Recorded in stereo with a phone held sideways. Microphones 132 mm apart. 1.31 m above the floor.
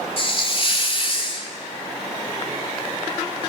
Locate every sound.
0.2 s a hiss: 45° left (ahead or behind), 2.5 m